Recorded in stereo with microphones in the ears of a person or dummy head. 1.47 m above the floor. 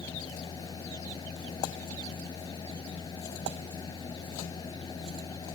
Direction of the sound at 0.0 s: 30° left (ahead or behind).